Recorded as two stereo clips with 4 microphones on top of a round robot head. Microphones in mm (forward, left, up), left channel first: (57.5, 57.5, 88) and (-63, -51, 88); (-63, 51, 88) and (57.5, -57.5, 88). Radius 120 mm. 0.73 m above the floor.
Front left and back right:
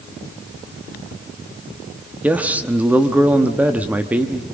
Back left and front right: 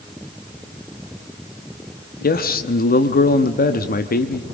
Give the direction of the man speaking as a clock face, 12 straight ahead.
7 o'clock.